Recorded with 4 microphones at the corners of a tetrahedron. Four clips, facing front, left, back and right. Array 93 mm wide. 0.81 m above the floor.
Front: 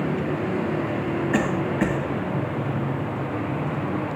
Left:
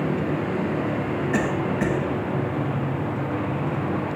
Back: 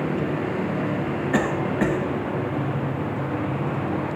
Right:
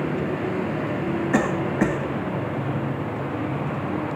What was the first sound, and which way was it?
A cough, 110° right.